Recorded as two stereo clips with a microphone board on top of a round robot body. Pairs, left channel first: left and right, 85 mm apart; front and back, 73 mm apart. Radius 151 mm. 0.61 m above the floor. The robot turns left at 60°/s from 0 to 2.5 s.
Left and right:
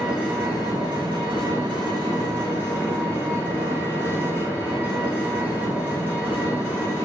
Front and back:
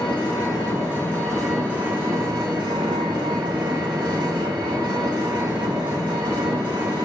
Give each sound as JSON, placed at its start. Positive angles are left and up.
{"t": 0.0, "sound": "an engine running", "azimuth_deg": -5, "distance_m": 2.5}